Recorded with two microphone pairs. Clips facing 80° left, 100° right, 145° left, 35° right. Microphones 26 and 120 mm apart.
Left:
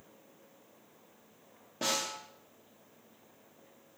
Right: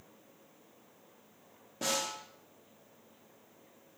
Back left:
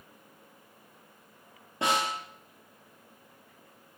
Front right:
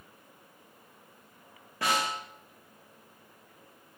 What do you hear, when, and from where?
1.8 s a snare drum: 135° left, 0.9 m